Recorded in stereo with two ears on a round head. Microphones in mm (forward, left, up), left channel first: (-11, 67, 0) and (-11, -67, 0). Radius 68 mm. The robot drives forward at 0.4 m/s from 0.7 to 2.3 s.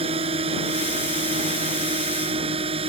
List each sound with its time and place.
0.0 s a drone: 40° right (ahead or behind)